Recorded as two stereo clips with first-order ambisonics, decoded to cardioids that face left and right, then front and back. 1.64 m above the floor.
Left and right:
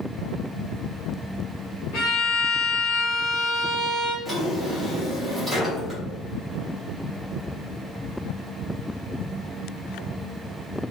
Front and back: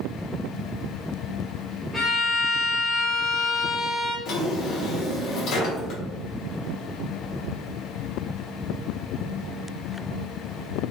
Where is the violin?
85° left, 1.0 m.